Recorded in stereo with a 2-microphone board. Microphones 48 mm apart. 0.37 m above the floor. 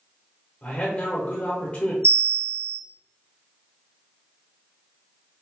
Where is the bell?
65° right (ahead or behind), 1.0 m.